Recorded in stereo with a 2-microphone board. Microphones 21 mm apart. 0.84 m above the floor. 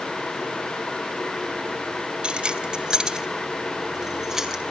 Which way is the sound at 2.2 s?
55° right (ahead or behind).